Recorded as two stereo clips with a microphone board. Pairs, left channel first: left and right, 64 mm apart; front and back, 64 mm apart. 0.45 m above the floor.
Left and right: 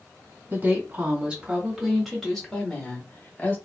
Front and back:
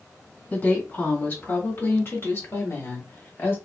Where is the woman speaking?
50° right, 1.7 m; by 3.6 s 35° left, 1.8 m.